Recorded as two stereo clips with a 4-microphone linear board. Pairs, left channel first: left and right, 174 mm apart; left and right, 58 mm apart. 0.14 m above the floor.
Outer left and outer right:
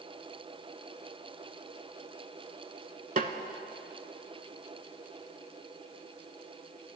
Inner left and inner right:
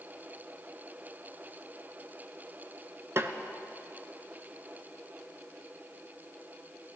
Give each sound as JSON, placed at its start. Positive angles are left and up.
{"t": 3.2, "sound": "a snare drum", "side_deg": -50, "distance_m": 0.5}